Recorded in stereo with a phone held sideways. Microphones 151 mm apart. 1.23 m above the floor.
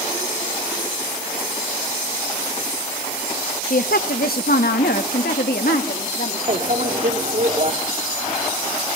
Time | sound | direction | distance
3.7 | a woman speaking | 65° left (ahead or behind) | 1.0 m
6.5 | a microwave | 55° right (ahead or behind) | 2 m